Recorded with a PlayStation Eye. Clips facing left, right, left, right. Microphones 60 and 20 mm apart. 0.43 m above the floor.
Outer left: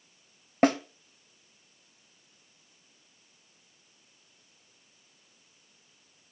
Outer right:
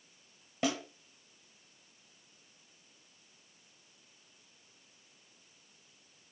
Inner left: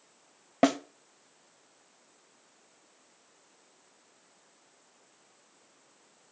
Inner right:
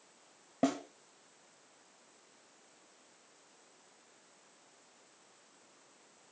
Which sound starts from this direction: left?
A snare drum, at 0.6 s.